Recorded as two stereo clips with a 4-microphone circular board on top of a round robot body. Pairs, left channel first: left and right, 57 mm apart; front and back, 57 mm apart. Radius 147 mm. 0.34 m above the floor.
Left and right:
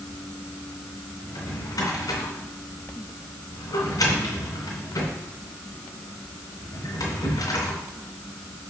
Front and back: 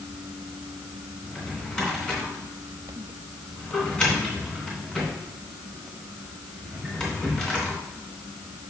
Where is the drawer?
80° left, 3 m.